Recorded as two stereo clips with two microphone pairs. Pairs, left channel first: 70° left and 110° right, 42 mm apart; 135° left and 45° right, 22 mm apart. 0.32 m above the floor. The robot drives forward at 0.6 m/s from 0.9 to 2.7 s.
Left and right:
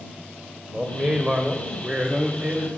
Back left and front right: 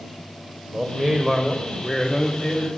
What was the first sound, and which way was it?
A man speaking, 45° right.